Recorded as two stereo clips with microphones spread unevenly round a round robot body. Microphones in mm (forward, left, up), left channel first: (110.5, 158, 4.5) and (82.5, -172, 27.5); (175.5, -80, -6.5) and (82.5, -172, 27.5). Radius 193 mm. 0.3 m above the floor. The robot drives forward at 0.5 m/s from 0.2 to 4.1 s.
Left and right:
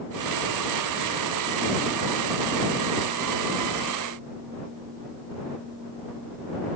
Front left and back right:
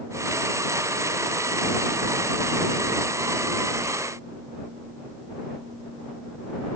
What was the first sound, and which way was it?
Only background noise.